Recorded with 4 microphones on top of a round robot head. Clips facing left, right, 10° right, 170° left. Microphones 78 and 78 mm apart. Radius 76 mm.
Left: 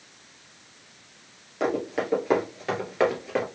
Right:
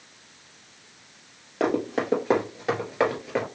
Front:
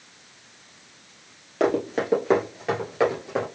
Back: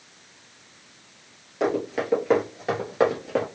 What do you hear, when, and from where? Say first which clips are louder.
1.6 s running footsteps: right 2 dB, front 2 dB; 45° right, 1.7 m; by 3.5 s 175° left, 1.6 m